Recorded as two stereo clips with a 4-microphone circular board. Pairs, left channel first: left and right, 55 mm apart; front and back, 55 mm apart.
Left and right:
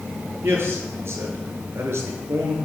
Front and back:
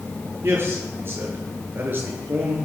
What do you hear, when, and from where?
0.4 s a man speaking: 135° right, 6 m; by 2.5 s 130° right, 5 m